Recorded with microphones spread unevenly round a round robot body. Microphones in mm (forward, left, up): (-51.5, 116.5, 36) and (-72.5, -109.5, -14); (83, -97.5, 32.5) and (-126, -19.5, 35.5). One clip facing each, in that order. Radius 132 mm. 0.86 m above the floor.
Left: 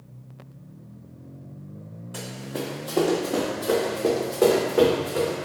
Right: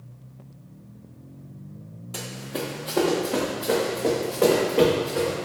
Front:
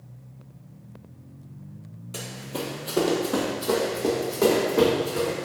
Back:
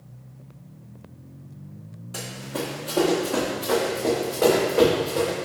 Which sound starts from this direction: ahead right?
Running footsteps, at 2.1 s.